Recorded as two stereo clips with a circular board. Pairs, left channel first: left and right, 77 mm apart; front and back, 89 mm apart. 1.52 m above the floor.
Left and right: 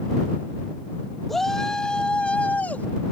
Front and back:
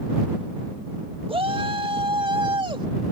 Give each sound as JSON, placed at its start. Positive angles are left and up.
{"t": 1.3, "sound": "a shout", "azimuth_deg": 175}